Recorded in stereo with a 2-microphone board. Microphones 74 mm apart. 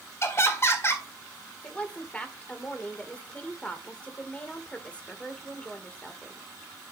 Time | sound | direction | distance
0.2 | laughter | 35° left (ahead or behind) | 1.9 m
1.6 | a woman speaking | 15° left (ahead or behind) | 1.6 m